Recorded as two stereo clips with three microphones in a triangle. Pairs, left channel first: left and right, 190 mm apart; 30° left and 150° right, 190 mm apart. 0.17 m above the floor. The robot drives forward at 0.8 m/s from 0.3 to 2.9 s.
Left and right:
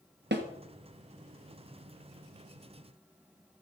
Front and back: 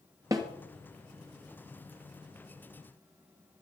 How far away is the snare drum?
About 2 m.